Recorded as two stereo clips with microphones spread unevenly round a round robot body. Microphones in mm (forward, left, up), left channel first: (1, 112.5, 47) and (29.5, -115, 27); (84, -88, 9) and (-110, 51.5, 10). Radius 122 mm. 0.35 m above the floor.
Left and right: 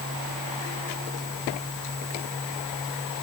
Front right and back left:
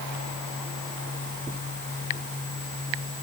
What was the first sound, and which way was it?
Only background noise.